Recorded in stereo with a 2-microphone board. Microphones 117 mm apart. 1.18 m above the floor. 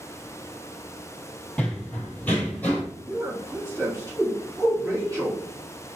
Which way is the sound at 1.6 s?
10° left (ahead or behind).